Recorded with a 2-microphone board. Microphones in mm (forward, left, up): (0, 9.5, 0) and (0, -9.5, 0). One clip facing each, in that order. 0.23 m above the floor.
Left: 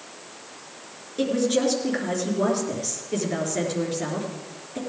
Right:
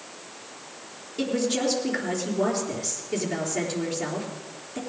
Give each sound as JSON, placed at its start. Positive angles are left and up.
{"t": 1.2, "sound": "a woman speaking", "side_deg": 10, "distance_m": 4.0}